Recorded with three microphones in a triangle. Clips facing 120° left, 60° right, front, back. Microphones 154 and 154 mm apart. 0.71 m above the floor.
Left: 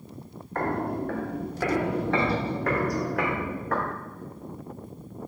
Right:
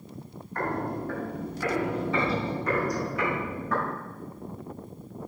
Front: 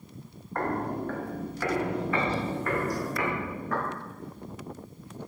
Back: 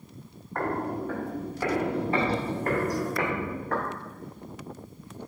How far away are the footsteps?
About 1.8 m.